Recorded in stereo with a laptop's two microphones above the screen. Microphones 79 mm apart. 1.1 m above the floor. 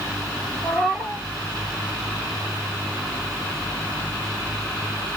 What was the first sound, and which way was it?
A cat meowing, 15° right (ahead or behind).